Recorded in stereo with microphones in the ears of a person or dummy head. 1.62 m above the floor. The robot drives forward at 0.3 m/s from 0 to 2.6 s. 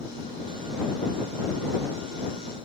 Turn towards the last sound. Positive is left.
No sound to turn to.